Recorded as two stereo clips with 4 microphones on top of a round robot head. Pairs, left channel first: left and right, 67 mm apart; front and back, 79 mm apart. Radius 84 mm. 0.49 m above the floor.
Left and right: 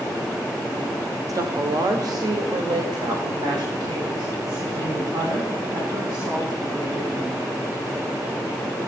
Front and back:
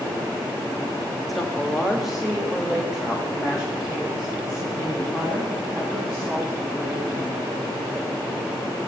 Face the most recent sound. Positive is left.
turn(degrees=-95)